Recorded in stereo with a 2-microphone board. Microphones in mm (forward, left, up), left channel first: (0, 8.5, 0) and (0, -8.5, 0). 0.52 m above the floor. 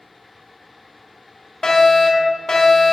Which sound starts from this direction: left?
A fire alarm, at 1.6 s.